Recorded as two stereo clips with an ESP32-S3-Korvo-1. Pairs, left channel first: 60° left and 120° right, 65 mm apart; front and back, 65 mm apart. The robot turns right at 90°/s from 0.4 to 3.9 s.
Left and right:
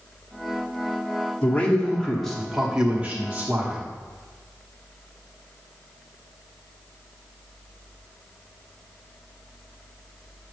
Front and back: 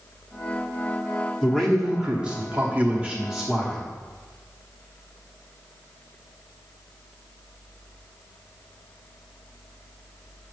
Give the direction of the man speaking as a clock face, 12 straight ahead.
10 o'clock.